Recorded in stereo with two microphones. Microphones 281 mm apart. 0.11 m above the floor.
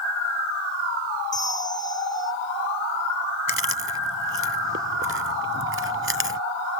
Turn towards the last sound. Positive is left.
turn(degrees=-45)  # may be behind; listen again after turning